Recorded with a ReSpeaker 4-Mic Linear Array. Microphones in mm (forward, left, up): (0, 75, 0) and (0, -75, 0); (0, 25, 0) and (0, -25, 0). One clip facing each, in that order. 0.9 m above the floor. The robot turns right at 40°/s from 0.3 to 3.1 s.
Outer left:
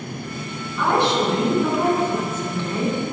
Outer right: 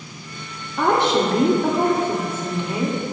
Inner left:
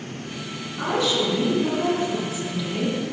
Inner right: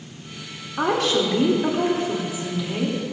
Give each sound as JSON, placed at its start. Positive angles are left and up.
{"t": 0.8, "sound": "a woman speaking", "azimuth_deg": -95, "distance_m": 3.0}